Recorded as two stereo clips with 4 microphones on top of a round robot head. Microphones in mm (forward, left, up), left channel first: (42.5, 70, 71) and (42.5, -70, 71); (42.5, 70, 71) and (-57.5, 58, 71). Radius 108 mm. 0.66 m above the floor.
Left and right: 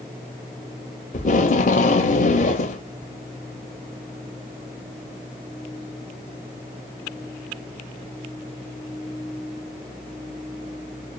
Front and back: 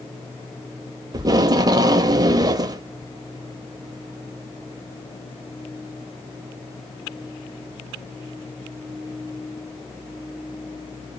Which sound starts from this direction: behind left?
Tape being pulled, at 1.1 s.